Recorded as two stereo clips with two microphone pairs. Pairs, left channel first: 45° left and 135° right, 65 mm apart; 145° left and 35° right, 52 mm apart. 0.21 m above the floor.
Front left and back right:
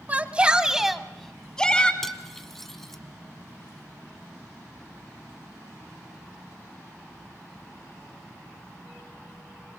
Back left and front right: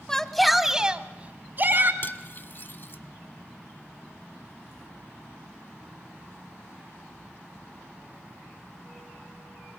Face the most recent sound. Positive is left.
turn(degrees=125)